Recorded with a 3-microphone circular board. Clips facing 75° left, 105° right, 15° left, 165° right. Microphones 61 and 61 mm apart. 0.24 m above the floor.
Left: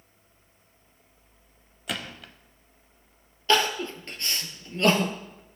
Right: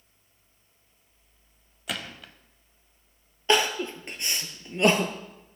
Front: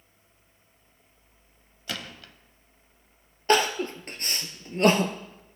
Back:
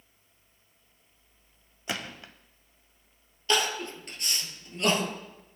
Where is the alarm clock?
I don't hear an alarm clock.